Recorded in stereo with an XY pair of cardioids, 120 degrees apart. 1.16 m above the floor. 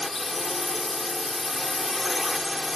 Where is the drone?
20° left.